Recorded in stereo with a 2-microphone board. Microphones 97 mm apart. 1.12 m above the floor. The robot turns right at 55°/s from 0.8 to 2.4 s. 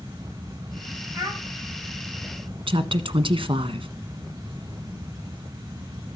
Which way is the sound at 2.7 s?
60° right (ahead or behind).